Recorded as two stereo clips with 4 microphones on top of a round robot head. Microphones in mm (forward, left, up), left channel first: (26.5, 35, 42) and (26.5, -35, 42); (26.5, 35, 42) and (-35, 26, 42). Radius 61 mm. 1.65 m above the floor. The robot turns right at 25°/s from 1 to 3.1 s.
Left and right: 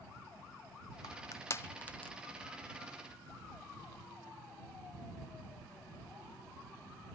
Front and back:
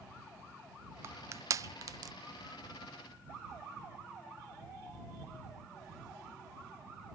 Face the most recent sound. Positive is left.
turn(degrees=-165)